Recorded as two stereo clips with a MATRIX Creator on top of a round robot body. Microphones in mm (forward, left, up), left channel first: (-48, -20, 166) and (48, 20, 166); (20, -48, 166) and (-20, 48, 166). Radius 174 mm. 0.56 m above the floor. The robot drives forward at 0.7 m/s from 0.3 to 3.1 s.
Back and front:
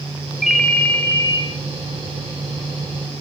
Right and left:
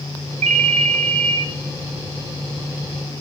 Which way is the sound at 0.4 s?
105° left.